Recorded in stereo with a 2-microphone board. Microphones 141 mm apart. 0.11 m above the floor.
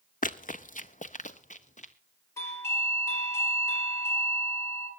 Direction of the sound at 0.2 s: 85° left.